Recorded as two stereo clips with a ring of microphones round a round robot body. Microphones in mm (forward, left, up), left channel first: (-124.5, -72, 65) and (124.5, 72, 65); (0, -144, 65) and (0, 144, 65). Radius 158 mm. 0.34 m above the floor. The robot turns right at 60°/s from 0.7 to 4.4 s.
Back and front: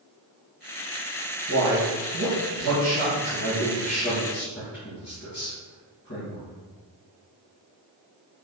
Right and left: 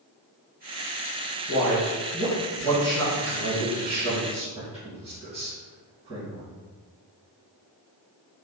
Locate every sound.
1.5 s a man speaking: 15° right, 1.8 m; by 6.4 s 160° left, 1.8 m